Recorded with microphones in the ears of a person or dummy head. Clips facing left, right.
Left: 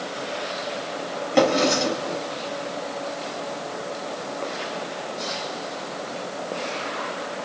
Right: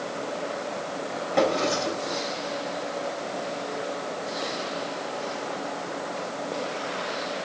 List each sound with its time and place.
1.3 s a drawer: 60° left (ahead or behind), 4 m